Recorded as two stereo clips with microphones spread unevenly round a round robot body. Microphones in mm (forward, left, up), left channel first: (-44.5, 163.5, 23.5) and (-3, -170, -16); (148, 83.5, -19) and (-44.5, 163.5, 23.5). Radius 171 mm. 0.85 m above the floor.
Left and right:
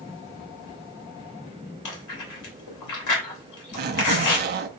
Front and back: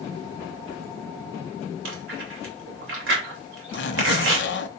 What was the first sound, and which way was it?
Chewing, 135° left.